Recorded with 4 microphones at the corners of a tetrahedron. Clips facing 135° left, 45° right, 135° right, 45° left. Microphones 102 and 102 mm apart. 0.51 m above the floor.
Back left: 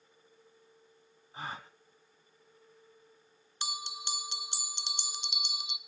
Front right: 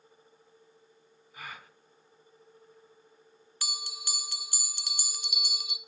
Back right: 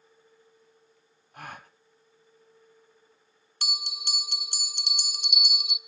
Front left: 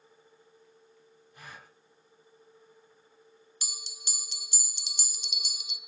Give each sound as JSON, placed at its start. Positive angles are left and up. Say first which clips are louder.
{"t": 1.3, "sound": "a gasp", "louder": "back left 4 dB, back right 7 dB", "azimuth_deg": -165, "distance_m": 1.1}
{"t": 3.6, "sound": "a bell", "louder": "back left 3 dB, back right 12 dB", "azimuth_deg": -160, "distance_m": 0.7}